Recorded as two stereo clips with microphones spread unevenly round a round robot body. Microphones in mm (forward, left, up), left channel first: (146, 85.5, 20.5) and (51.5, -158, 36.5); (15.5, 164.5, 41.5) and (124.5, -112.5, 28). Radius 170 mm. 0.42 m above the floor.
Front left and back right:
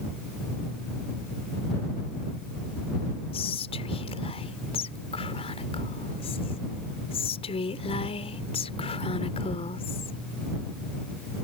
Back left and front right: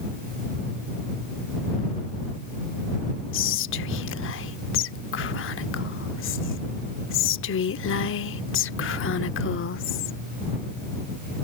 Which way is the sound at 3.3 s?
120° left.